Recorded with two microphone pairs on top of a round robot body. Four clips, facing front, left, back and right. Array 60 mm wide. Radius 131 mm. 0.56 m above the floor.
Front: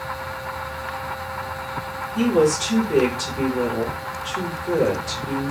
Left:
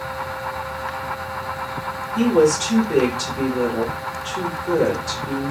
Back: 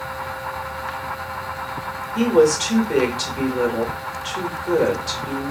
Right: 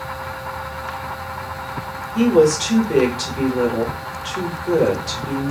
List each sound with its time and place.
2.1 s a woman speaking: 155° right, 1.2 m